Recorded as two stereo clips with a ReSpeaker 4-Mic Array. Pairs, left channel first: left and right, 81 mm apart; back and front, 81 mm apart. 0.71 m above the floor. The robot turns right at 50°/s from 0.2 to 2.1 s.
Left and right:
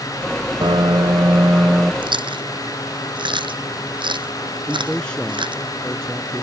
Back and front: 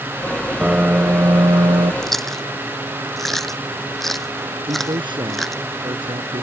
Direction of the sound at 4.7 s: 10° left.